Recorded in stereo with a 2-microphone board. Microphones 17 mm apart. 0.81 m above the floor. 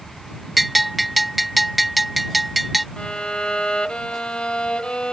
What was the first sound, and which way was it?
A bell, centre (ahead or behind).